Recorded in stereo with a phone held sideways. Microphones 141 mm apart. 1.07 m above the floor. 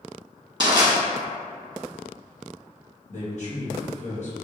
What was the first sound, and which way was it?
Crushing, 30° right (ahead or behind).